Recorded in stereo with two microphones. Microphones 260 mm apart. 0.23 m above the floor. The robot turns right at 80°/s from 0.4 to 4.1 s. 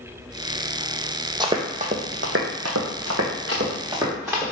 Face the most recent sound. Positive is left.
turn(degrees=-10)  # may be behind; listen again after turning